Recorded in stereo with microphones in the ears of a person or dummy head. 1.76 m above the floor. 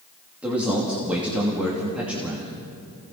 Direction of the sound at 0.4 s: 5° right (ahead or behind).